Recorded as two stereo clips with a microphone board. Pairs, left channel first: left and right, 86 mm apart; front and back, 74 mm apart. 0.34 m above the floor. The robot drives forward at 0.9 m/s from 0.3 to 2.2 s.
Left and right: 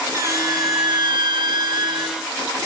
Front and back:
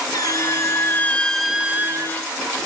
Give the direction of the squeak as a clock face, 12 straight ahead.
1 o'clock.